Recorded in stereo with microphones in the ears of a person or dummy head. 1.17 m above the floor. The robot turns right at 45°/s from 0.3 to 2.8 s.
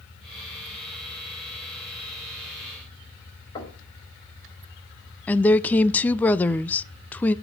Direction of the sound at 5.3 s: 10° left (ahead or behind).